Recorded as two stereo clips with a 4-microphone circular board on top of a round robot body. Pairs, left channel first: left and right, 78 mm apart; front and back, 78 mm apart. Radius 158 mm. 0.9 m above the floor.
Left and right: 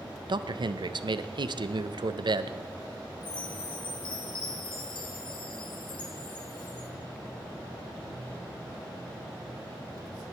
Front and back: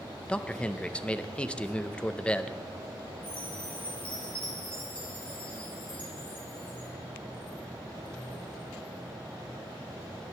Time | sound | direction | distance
0.3 | a man speaking | 75° right | 0.7 m
3.2 | a chime | 75° left | 0.7 m